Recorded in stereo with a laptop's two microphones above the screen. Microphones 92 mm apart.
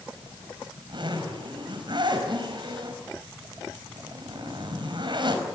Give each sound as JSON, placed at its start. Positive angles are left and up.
{"t": 0.1, "sound": "a zipper", "side_deg": -60, "distance_m": 5.0}